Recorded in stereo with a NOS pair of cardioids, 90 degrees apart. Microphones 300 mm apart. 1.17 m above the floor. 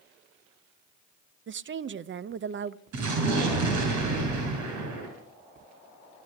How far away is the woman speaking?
About 0.7 m.